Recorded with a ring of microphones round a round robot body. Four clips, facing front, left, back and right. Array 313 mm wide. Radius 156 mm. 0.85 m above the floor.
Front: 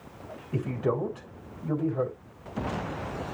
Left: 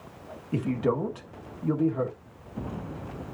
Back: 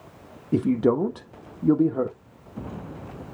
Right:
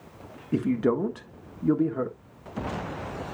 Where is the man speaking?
160° right, 1.6 m.